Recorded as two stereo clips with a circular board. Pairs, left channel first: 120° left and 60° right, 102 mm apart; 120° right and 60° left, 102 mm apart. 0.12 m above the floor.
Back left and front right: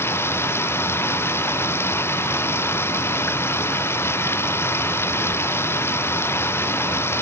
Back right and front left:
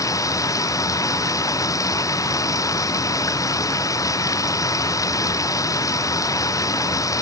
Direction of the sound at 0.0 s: 175° right.